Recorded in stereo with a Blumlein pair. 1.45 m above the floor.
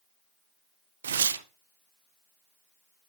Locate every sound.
1.0 s tearing paper: 65° right, 0.6 m